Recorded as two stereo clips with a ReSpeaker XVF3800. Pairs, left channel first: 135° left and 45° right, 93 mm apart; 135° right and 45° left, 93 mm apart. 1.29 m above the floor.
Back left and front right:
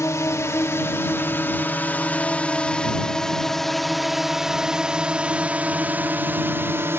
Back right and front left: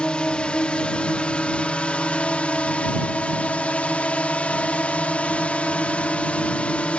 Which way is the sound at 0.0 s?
155° left.